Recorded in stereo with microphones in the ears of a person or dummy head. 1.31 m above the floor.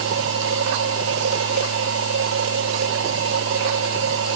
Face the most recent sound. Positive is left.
turn(degrees=-80)